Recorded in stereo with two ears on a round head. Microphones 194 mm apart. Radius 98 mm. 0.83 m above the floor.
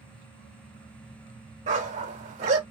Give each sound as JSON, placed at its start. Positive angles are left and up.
{"t": 1.7, "sound": "a dog barking", "side_deg": -35, "distance_m": 0.8}